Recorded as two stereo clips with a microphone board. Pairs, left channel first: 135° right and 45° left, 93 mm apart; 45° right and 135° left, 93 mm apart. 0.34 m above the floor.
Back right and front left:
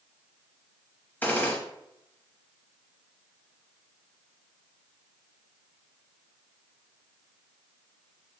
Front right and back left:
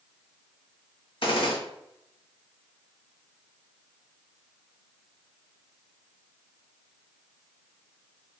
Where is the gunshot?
65° right, 0.7 m.